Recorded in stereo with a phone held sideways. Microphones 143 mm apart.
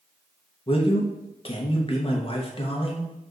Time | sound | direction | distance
0.7 | a man speaking | 40° left (ahead or behind) | 0.8 m